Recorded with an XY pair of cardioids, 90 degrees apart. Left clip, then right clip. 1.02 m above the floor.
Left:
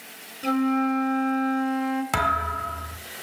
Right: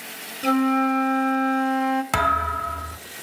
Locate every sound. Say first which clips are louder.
0.4 s a flute: right 3 dB; 40° right, 1.5 m
2.1 s a thud: right 1 dB; 15° right, 1.5 m